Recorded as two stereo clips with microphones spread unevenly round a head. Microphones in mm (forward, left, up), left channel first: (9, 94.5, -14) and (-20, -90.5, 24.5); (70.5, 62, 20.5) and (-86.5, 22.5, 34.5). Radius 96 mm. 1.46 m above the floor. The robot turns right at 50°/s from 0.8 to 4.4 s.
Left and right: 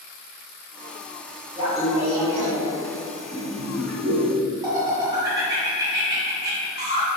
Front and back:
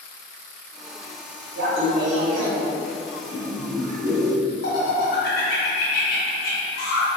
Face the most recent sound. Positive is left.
turn(degrees=-25)